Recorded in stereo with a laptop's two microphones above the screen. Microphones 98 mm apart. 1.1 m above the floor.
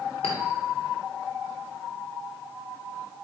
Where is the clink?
85° left, 2.5 m.